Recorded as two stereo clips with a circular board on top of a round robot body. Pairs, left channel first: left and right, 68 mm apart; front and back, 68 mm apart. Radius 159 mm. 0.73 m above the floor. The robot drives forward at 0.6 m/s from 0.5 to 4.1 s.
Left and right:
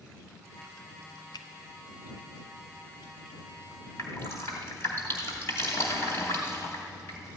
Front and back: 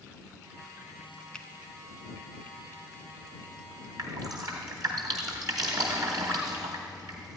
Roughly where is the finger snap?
Left.